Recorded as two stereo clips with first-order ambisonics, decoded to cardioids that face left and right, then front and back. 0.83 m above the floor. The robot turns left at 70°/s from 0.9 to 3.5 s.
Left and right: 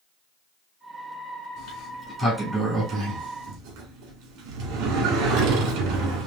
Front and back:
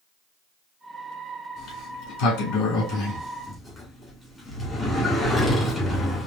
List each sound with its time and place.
1.6 s a sliding door: 55° left, 2.5 m; by 6.3 s 80° right, 2.5 m